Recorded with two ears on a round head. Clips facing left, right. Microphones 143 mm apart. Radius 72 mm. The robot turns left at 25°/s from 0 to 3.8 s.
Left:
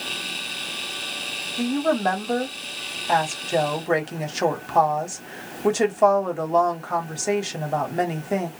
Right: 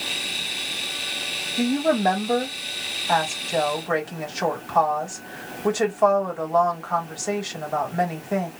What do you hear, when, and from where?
1.6 s a woman speaking: 155° right, 1.1 m; by 8.5 s 150° left, 1.1 m